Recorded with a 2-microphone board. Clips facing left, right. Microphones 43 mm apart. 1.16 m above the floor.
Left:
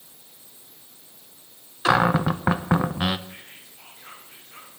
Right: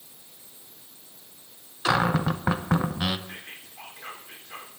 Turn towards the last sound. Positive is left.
turn(degrees=-85)